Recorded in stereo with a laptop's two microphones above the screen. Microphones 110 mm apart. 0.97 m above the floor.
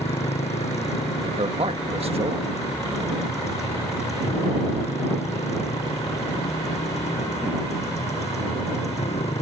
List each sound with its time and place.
0.0 s a motorcycle: 85° left
1.2 s a man speaking: 65° right (ahead or behind)